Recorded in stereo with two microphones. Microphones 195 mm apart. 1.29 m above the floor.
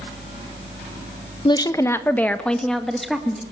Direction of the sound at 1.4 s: 25° left (ahead or behind).